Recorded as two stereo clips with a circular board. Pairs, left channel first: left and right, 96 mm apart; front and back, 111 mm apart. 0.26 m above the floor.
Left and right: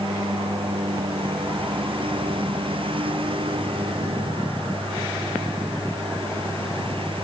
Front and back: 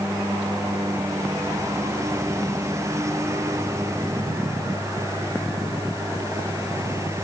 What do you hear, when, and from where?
0.0 s a lawn mower: 115° right